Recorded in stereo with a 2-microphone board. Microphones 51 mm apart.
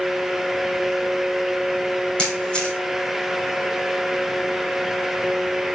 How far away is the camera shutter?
About 4 m.